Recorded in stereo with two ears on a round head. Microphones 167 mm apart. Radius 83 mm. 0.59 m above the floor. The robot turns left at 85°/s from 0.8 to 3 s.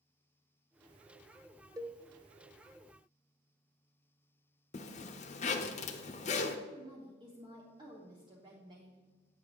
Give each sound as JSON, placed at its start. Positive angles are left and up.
{"t": 1.8, "sound": "a cowbell", "side_deg": -20, "distance_m": 0.6}
{"t": 4.7, "sound": "a zipper", "side_deg": 40, "distance_m": 0.8}
{"t": 6.7, "sound": "a woman speaking", "side_deg": -25, "distance_m": 1.0}